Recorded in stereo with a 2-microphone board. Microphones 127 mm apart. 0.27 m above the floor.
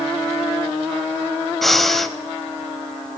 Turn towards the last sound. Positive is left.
turn(degrees=0)  # may be behind; listen again after turning